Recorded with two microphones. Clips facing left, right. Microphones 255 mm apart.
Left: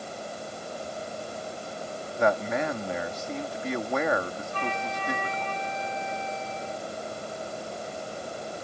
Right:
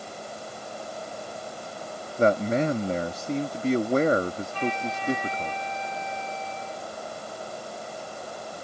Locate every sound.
2.2 s a man speaking: 35° right (ahead or behind)
4.5 s a flute: 60° left (ahead or behind)